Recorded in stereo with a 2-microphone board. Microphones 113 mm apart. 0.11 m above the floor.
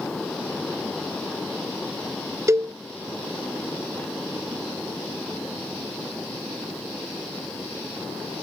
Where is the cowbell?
25° right (ahead or behind).